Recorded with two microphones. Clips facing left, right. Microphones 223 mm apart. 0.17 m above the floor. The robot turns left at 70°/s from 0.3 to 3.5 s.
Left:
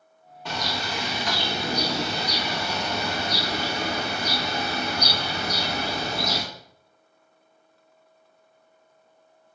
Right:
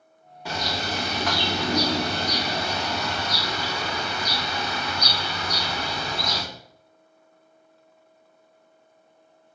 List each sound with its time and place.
0.5 s a bird: 5° right, 2.5 m; by 6.4 s 140° left, 2.5 m